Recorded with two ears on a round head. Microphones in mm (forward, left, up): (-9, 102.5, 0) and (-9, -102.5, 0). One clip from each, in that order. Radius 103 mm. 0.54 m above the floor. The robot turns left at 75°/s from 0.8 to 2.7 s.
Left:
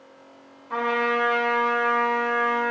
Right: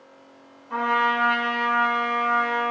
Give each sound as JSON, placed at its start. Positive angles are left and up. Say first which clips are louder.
{"t": 0.7, "sound": "a trumpet", "louder": "right 2 dB", "azimuth_deg": 10, "distance_m": 1.1}